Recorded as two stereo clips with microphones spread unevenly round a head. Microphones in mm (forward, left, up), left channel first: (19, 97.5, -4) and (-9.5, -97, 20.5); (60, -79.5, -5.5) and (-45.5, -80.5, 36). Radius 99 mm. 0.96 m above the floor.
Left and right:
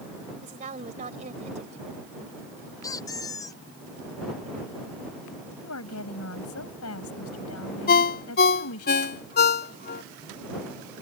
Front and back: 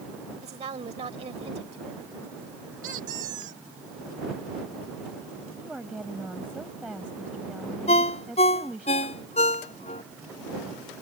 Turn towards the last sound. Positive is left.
turn(degrees=40)